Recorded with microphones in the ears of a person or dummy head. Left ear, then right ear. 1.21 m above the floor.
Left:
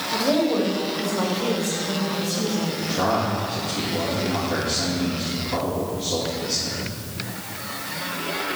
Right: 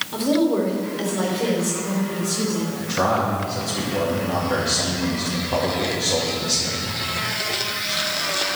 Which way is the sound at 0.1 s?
Centre (ahead or behind).